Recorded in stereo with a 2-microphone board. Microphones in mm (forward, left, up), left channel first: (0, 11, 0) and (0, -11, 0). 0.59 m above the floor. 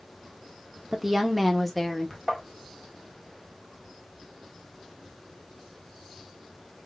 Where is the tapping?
10° right (ahead or behind), 1.7 m.